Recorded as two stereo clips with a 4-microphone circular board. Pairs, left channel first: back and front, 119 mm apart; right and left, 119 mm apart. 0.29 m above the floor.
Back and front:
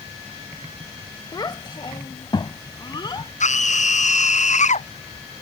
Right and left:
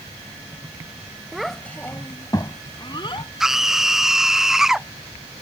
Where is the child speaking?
170° left; by 3.3 s 130° right.